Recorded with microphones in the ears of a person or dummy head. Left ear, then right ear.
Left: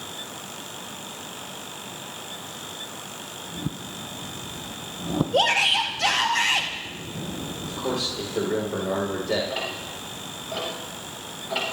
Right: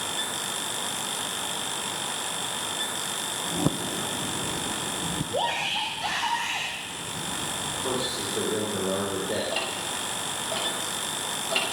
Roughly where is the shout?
Left.